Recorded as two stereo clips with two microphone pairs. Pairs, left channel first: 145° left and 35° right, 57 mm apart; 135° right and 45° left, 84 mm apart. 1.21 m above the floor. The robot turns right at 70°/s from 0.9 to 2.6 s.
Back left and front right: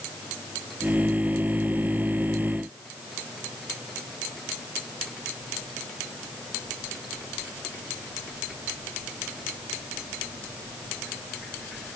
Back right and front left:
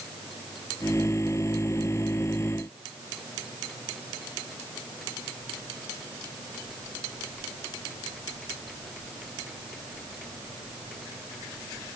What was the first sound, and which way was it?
Only background noise.